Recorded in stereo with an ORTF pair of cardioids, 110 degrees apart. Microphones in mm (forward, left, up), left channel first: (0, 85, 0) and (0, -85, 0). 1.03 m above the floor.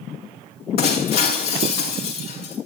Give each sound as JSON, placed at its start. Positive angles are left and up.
{"t": 0.8, "sound": "breaking glass", "azimuth_deg": 65, "distance_m": 6.5}